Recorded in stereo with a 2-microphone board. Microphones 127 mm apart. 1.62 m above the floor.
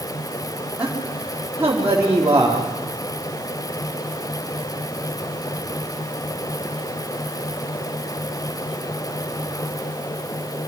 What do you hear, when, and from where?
0.8 s a man speaking: 10° right (ahead or behind), 4.5 m; by 2.6 s 25° right (ahead or behind), 4 m